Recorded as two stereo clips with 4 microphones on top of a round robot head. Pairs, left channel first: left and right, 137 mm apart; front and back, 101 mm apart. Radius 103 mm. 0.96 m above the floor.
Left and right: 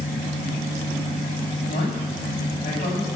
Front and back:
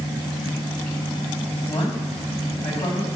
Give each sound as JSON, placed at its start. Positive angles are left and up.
{"t": 1.7, "sound": "a man speaking", "azimuth_deg": 30, "distance_m": 7.0}